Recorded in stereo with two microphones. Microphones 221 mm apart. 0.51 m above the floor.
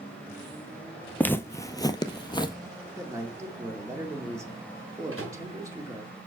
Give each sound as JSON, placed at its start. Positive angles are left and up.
{"t": 1.2, "sound": "footsteps", "side_deg": 10, "distance_m": 0.5}
{"t": 3.0, "sound": "a man speaking", "side_deg": -15, "distance_m": 1.4}
{"t": 5.1, "sound": "a microwave", "side_deg": -75, "distance_m": 3.5}